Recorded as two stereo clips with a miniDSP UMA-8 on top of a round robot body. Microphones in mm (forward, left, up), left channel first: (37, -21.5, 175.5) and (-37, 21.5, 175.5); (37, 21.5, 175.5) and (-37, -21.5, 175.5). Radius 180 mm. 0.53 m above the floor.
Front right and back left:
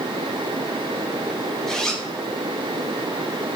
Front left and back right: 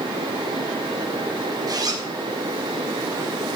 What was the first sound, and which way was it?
A zipper, 115° right.